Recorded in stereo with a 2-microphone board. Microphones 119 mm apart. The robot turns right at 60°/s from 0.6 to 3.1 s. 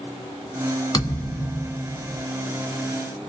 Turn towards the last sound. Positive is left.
turn(degrees=-85)